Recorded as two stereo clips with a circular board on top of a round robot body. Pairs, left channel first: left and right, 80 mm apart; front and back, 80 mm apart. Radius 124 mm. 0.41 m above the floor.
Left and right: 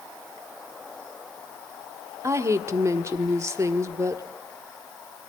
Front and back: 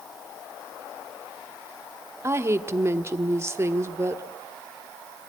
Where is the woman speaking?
130° right, 1.7 m.